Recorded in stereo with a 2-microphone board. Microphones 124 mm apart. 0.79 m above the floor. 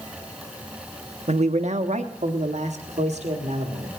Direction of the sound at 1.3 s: 65° right (ahead or behind).